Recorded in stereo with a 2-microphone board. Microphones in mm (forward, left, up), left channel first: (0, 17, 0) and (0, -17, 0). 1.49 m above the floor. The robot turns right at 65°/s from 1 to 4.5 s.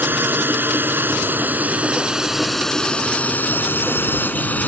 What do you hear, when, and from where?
0.0 s a drone: 80° right; by 4.7 s 60° left (ahead or behind)